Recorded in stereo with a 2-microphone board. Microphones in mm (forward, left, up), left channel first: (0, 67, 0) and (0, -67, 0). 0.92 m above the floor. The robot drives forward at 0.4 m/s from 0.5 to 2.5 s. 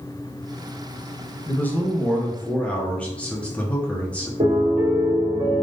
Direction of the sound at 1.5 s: 15° left (ahead or behind).